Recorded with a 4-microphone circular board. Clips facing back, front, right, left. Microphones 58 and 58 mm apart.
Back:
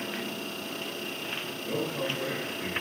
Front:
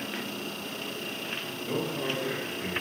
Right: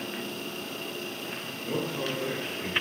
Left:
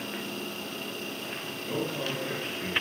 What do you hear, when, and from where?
1.6 s a man speaking: 75° right, 1.8 m; by 2.7 s 100° right, 1.6 m